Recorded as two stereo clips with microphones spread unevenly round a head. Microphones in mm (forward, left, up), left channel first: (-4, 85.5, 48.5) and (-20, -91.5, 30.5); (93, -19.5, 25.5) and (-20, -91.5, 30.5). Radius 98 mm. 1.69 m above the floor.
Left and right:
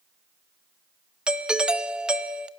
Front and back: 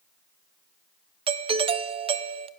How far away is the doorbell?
About 0.6 m.